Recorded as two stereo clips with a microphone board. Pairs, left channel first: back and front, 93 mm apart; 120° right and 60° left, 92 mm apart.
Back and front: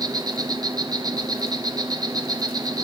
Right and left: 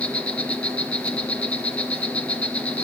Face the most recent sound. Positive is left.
turn(degrees=-45)